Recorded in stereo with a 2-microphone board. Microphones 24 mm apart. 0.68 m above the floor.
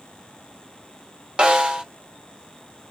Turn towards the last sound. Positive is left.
turn(degrees=-40)  # may be behind; listen again after turning